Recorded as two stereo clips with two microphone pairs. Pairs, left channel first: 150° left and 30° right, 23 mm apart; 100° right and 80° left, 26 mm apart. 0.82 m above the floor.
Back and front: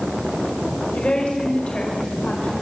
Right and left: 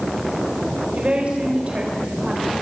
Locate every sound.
0.9 s a woman speaking: 125° left, 4 m; by 2.5 s 135° left, 4 m